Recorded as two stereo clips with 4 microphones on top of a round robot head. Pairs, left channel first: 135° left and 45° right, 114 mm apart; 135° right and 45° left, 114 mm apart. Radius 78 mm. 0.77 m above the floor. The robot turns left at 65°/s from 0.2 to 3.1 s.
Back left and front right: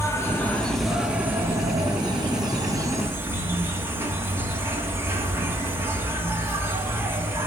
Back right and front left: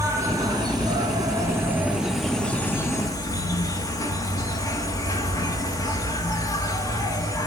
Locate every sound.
0.0 s an insect: 85° left, 2.0 m; by 7.5 s 100° right, 2.0 m